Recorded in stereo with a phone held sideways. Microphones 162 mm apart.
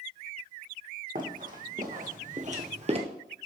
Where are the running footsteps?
60° right (ahead or behind), 2.5 m; by 3.0 s 40° right (ahead or behind), 1.1 m.